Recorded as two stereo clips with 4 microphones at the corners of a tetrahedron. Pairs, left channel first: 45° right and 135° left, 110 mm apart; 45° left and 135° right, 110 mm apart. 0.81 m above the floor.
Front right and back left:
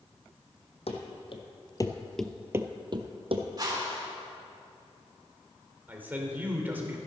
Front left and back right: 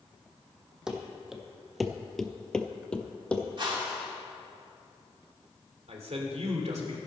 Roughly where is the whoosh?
Behind.